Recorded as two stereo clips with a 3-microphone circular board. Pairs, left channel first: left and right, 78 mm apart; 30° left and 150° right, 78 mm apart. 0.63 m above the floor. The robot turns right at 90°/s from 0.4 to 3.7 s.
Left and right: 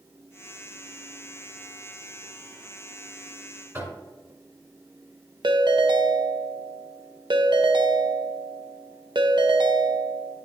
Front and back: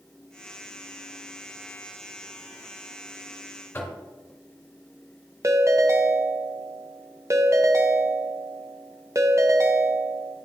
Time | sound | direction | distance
3.7 | knocking | 35° right | 1.8 m
5.4 | a ringtone | 100° right | 0.7 m